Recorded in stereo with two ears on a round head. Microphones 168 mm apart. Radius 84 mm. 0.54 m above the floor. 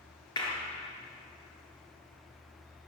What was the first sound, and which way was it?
A clap, 25° left (ahead or behind).